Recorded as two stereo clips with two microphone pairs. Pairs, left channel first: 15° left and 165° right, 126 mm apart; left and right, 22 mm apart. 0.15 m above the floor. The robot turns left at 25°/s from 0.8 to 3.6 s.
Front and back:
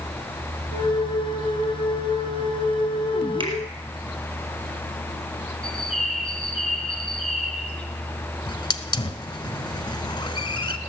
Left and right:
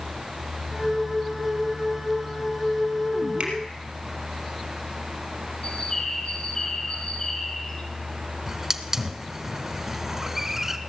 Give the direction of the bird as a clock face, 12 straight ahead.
9 o'clock.